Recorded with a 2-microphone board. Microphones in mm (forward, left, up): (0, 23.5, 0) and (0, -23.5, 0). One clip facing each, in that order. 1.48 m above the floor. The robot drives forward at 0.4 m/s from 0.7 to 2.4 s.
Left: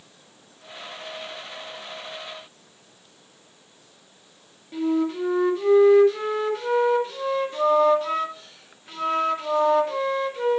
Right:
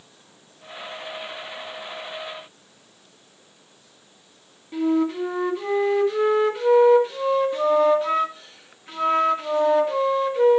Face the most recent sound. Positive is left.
turn(degrees=-5)  # may be behind; listen again after turning